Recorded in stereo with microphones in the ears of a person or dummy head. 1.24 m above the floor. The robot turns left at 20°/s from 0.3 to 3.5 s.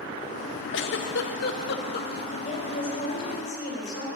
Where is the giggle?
60° left (ahead or behind), 0.9 m; by 2.2 s 45° left (ahead or behind), 0.9 m.